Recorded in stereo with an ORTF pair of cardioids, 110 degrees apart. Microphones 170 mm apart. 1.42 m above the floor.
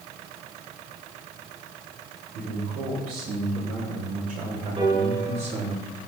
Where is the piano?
30° right, 8 m.